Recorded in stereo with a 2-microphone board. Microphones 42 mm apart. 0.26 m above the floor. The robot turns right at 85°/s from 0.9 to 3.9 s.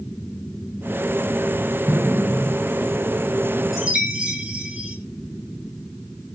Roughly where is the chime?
Centre.